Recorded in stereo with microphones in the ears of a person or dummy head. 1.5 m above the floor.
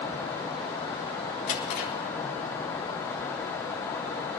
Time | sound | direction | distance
1.5 | a drawer | 40° left (ahead or behind) | 5 m